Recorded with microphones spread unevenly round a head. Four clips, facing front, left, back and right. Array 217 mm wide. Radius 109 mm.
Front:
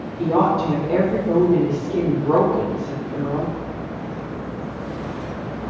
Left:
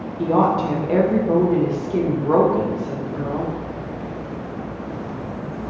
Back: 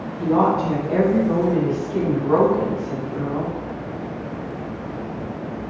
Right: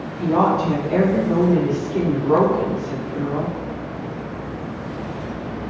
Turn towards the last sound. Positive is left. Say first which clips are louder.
# even, even
turn(degrees=60)